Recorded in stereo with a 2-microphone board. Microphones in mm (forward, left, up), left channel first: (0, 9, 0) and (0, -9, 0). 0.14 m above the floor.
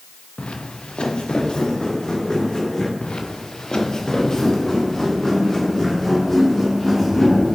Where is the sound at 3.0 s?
60° left (ahead or behind), 0.9 m; by 7.6 s 15° left (ahead or behind), 3 m.